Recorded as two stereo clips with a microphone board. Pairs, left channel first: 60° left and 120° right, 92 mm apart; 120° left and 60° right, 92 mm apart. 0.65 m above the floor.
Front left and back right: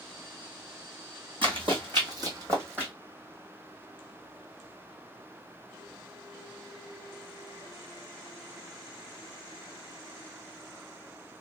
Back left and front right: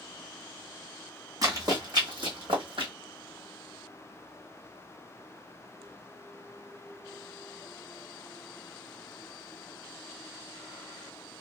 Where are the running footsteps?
105° right, 1.8 m; by 2.9 s 50° right, 1.5 m.